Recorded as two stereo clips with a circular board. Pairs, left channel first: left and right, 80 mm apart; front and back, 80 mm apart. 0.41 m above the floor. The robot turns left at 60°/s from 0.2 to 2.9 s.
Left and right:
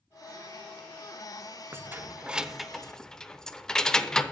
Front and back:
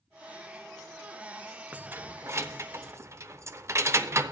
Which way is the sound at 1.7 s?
120° right.